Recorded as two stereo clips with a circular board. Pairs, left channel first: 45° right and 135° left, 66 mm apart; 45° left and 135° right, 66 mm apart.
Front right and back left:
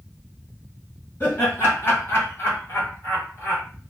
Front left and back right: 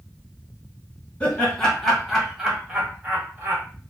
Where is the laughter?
15° right, 1.4 m; by 3.6 s 85° right, 1.8 m.